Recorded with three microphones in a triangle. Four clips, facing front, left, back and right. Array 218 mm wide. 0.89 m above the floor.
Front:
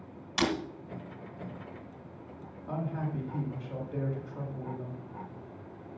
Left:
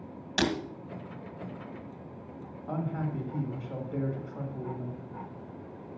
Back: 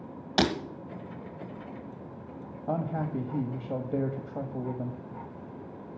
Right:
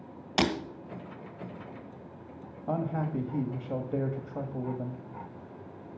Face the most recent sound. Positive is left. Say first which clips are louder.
# right 3 dB, back 4 dB
turn(degrees=-145)